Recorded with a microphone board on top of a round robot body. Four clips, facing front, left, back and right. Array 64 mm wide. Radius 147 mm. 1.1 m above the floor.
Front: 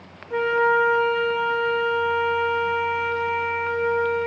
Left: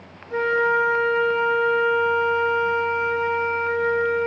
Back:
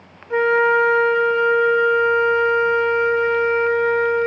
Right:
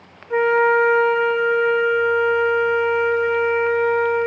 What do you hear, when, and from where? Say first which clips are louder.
0.3 s a flute: right 4 dB, back 4 dB; 130° right, 1.3 m